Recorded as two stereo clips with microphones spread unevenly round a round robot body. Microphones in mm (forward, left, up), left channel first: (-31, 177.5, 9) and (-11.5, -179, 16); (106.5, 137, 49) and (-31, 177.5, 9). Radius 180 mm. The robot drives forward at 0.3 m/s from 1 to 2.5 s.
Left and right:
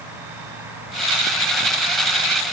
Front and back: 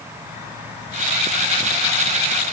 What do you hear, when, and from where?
Only background noise.